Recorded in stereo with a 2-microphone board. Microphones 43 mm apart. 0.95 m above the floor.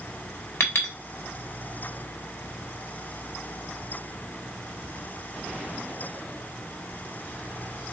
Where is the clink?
70° left (ahead or behind), 1.2 m.